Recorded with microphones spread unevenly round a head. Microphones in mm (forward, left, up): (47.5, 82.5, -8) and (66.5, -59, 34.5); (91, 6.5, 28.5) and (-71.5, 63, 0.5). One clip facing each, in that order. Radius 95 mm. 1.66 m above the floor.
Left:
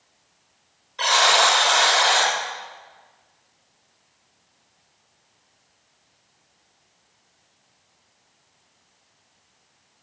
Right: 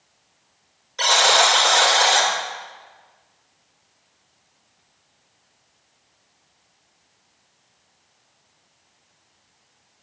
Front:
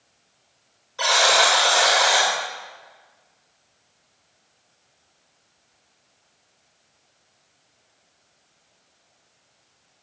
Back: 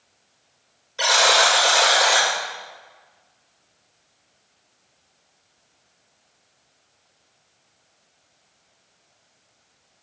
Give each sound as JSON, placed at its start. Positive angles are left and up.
{"t": 1.0, "sound": "a buzzer", "azimuth_deg": -125, "distance_m": 2.5}